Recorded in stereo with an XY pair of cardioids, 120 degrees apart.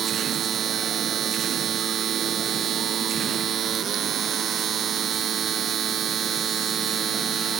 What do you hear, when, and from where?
0.0 s a machine running: 50° right